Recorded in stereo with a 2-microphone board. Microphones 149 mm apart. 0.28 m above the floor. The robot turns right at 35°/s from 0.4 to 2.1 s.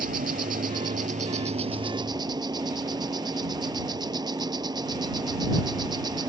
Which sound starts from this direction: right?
An insect, at 0.0 s.